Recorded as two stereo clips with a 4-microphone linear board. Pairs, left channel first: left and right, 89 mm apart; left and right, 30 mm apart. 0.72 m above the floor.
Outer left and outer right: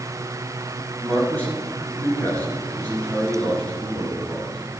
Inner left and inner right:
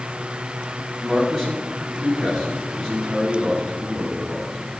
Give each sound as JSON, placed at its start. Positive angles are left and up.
{"t": 1.0, "sound": "a man speaking", "side_deg": 15, "distance_m": 5.0}